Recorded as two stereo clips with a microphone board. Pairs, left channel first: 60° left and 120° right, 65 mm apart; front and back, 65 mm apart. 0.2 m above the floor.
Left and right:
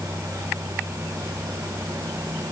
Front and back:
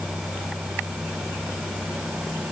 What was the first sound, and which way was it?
Only background noise.